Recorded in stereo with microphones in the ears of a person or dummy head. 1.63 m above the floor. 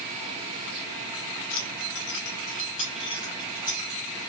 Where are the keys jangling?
45° left (ahead or behind), 1.0 m; by 3.9 s 20° left (ahead or behind), 2 m.